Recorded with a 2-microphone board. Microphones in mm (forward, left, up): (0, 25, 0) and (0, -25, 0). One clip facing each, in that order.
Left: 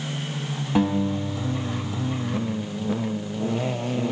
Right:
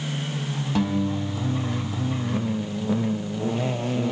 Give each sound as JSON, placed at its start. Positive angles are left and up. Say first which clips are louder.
{"t": 0.8, "sound": "a guitar", "louder": "left 3 dB", "side_deg": 15, "distance_m": 0.6}